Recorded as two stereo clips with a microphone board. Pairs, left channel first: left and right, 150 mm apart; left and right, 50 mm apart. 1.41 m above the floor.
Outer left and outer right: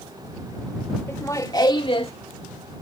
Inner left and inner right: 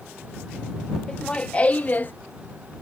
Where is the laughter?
20° left (ahead or behind); by 2.1 s 40° left (ahead or behind).